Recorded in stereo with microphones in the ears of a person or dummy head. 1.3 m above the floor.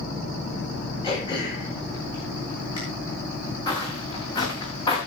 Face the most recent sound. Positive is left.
turn(degrees=20)  # may be behind; listen again after turning